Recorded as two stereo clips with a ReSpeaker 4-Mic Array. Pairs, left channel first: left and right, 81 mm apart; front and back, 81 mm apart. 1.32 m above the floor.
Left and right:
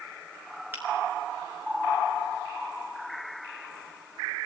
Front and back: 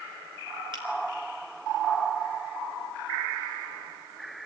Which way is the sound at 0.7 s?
155° right.